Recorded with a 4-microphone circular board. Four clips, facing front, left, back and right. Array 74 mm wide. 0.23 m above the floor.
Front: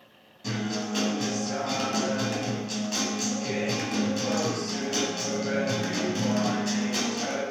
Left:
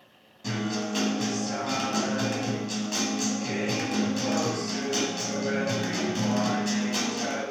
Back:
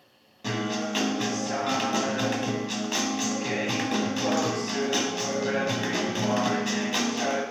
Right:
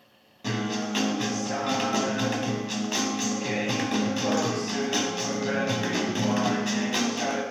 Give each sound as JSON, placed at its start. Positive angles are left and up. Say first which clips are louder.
{"t": 0.4, "sound": "a guitar", "louder": "right 1 dB, back 2 dB", "azimuth_deg": -140, "distance_m": 1.2}